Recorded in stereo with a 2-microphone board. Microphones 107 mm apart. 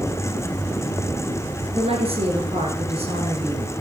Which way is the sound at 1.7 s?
65° right (ahead or behind).